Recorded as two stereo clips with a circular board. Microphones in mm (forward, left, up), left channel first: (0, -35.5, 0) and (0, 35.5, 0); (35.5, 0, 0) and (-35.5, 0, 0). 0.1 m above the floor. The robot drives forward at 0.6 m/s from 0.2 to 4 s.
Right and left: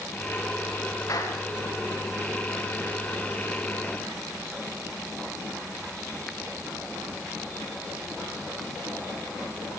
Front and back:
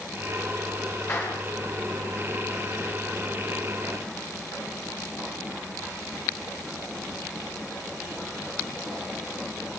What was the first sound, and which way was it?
A clap, 50° right.